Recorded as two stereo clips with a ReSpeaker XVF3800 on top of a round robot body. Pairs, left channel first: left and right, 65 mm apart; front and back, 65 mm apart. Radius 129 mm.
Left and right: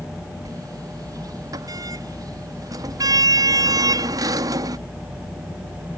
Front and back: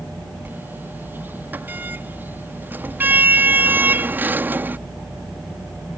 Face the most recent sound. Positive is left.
turn(degrees=-120)